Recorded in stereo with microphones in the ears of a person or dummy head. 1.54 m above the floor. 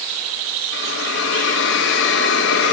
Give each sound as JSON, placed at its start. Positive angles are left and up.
{"t": 0.7, "sound": "a hiss", "side_deg": 80, "distance_m": 7.5}